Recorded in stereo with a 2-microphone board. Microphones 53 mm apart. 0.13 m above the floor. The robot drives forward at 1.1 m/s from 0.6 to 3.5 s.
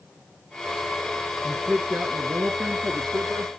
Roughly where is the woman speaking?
Right.